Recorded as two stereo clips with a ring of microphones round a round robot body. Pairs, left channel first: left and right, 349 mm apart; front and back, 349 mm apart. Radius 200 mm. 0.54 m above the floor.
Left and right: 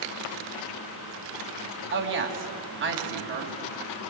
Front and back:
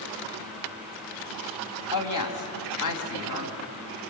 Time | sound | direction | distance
1.9 | a woman speaking | 35° right | 4.5 m